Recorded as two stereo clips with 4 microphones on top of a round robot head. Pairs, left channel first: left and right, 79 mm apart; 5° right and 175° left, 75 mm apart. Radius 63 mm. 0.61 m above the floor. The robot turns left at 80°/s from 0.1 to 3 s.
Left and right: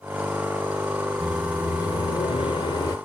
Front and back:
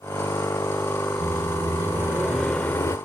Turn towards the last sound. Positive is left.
turn(degrees=35)